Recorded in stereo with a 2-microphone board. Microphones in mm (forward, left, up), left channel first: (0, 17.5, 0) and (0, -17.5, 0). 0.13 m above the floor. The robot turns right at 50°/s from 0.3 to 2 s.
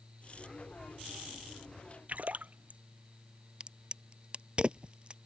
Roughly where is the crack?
Right.